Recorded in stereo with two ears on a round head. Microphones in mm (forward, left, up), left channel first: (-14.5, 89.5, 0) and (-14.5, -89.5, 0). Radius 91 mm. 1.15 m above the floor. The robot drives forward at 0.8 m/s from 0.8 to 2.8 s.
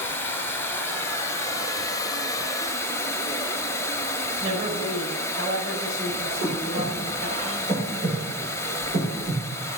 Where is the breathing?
45° right (ahead or behind), 5.5 m.